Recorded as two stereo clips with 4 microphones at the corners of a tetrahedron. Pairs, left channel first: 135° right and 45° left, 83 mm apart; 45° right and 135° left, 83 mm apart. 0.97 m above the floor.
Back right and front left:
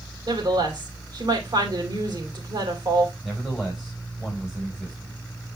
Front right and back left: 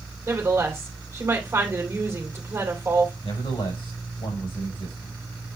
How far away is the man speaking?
About 5 m.